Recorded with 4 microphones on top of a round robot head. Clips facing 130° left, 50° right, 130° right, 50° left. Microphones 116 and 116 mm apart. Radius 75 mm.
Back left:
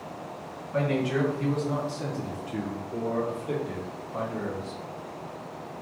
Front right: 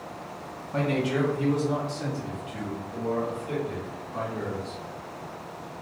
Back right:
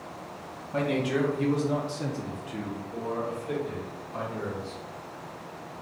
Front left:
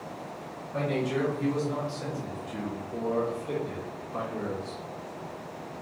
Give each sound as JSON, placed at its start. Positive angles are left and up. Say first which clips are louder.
{"t": 0.7, "sound": "a man speaking", "louder": "even, back right 2 dB", "azimuth_deg": -110, "distance_m": 1.3}